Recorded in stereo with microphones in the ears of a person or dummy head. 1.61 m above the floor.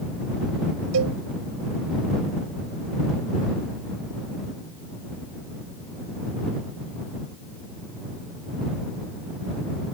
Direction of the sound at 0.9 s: 90° right.